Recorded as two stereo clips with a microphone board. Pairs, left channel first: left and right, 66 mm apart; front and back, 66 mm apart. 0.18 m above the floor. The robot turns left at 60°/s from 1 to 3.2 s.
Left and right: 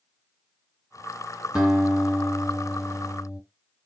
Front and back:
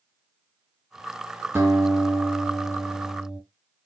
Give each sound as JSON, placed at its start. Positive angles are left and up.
{"t": 1.6, "sound": "a guitar", "azimuth_deg": -150, "distance_m": 2.0}